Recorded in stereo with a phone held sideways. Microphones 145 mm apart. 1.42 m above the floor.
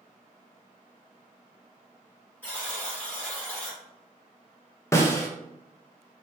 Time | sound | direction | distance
2.4 | a buzzer | 10° left (ahead or behind) | 1.5 m
4.9 | a snare drum | 20° left (ahead or behind) | 0.5 m